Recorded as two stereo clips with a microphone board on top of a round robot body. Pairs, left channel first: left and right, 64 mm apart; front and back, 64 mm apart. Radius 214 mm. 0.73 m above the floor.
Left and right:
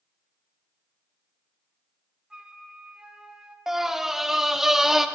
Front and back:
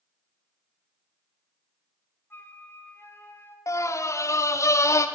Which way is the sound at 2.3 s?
20° right.